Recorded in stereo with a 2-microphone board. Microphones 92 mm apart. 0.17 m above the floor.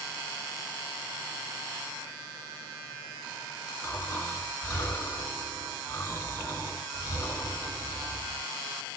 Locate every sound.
3.8 s snoring: 25° left (ahead or behind), 1.9 m